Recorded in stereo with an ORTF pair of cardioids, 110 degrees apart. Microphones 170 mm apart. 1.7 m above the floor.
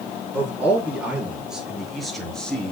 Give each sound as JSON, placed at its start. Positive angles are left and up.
{"t": 0.3, "sound": "a man speaking", "azimuth_deg": -10, "distance_m": 5.0}